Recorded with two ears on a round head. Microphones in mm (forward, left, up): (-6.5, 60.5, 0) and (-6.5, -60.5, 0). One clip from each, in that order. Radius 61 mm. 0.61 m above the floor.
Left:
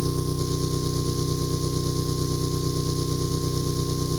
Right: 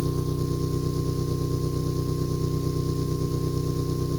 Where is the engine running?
65° left (ahead or behind).